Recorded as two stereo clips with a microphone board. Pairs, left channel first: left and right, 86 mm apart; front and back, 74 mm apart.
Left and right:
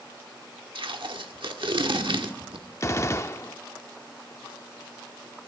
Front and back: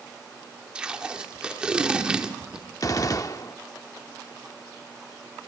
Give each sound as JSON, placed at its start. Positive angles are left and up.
{"t": 0.8, "sound": "tape being pulled", "azimuth_deg": -105, "distance_m": 1.3}
{"t": 2.8, "sound": "a gunshot", "azimuth_deg": 35, "distance_m": 0.6}